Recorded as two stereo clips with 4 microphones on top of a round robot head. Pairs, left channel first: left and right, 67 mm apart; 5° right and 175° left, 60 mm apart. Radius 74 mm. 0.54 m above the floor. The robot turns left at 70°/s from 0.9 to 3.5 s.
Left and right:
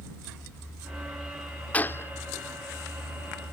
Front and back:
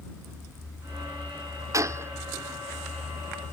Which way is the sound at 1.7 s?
160° left.